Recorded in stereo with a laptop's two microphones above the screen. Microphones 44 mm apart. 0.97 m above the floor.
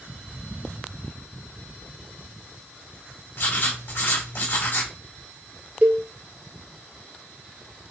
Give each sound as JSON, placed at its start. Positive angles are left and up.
{"t": 3.4, "sound": "writing", "side_deg": 65, "distance_m": 1.5}
{"t": 5.8, "sound": "a cowbell", "side_deg": -40, "distance_m": 0.6}